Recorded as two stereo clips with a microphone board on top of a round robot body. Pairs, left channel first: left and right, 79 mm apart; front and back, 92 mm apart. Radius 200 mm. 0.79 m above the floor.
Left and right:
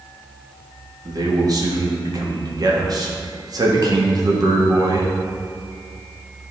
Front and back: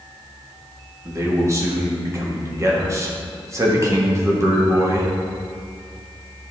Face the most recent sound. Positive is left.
turn(degrees=-125)